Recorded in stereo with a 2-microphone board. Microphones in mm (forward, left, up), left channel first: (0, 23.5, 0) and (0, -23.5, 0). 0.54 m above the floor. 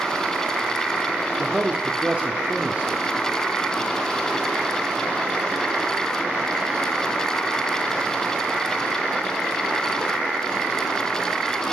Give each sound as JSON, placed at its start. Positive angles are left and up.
{"t": 1.4, "sound": "a man speaking", "side_deg": -35, "distance_m": 1.7}